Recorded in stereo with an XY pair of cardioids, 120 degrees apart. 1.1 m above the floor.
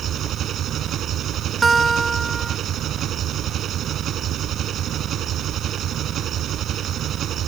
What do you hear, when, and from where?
0.0 s an engine running: 55° right
1.6 s a guitar: 20° right